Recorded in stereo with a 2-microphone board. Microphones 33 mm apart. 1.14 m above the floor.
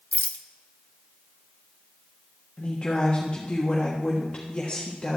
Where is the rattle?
50° left (ahead or behind), 0.6 m.